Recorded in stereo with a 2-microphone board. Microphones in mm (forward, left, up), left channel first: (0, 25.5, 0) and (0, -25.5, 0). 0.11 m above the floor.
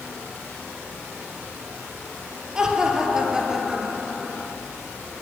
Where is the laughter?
15° right (ahead or behind), 2 m; by 4.5 s 5° right (ahead or behind), 1.2 m.